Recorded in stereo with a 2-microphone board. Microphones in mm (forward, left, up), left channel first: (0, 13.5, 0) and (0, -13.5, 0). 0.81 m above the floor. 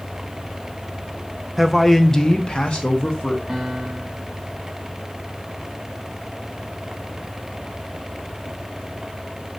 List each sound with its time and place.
1.6 s a man speaking: 10° right (ahead or behind), 0.8 m; by 3.4 s 45° left (ahead or behind), 1.5 m
3.5 s a piano: 15° right (ahead or behind), 2.5 m